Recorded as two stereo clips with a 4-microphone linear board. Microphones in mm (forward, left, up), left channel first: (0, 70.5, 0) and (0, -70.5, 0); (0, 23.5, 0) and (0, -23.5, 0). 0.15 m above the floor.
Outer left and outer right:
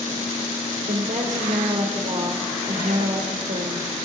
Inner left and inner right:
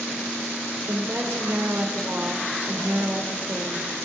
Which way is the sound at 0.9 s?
65° right (ahead or behind).